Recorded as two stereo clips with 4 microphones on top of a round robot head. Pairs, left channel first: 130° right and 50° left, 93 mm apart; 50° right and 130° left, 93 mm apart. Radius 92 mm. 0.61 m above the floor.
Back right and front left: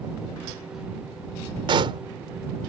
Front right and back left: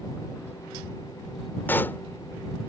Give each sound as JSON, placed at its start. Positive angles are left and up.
{"t": 1.7, "sound": "a pop", "azimuth_deg": 20}